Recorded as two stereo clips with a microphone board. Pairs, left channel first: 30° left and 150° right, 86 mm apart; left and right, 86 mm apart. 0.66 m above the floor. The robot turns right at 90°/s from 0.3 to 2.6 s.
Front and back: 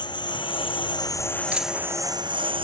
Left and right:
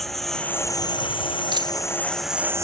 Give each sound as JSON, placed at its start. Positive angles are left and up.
{"t": 0.0, "sound": "a lawn mower", "azimuth_deg": 0}
{"t": 1.5, "sound": "a dropped coin", "azimuth_deg": -80}